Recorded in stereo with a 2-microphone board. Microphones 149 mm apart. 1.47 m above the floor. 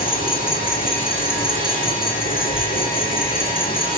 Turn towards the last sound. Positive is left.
turn(degrees=70)  # may be behind; listen again after turning